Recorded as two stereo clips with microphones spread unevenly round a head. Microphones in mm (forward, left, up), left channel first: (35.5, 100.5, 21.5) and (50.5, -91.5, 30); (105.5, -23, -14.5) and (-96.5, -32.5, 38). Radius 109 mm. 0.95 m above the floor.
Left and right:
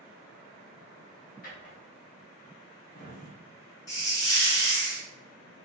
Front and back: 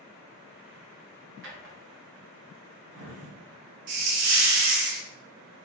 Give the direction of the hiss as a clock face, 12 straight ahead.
6 o'clock.